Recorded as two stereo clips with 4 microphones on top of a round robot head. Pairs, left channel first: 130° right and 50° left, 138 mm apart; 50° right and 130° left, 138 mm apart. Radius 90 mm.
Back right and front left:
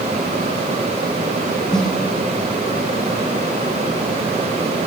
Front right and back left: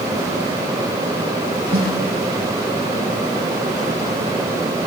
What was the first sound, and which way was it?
A snare drum, 145° left.